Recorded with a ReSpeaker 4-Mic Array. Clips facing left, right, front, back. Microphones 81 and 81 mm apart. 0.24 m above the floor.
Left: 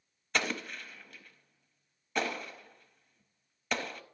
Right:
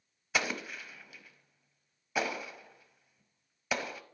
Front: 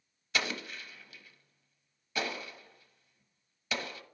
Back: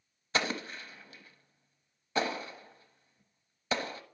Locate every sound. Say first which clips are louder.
0.3 s an explosion: even, back 3 dB; 170° right, 0.7 m